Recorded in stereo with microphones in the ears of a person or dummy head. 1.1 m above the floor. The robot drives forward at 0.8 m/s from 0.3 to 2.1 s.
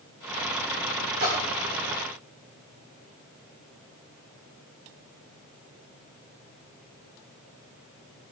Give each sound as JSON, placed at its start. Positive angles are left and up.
{"t": 1.2, "sound": "a splash", "side_deg": -50, "distance_m": 5.5}